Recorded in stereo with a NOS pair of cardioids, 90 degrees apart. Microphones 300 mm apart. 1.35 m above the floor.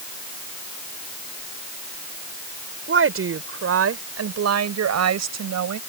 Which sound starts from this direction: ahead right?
A woman speaking, at 2.9 s.